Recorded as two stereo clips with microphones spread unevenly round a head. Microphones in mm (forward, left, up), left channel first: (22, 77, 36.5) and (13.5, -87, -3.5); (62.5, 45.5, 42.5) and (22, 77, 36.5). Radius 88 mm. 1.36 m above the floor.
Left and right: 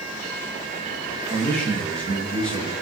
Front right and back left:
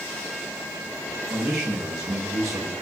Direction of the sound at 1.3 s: 175° left.